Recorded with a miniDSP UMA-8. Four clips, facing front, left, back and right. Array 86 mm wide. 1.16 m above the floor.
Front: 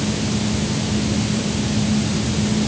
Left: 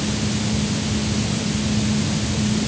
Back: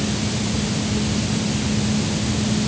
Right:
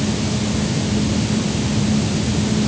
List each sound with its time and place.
Only background noise.